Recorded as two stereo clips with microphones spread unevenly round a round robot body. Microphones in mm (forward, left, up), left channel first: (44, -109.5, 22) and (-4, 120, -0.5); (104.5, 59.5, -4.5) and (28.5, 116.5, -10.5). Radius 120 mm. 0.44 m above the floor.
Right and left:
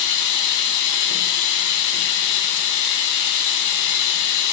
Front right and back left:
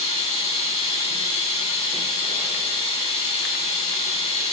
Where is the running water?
75° right, 1.6 m.